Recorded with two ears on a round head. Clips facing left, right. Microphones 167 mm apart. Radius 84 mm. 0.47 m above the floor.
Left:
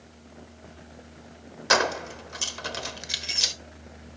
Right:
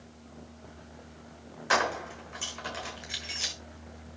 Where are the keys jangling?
50° left (ahead or behind), 1.4 m.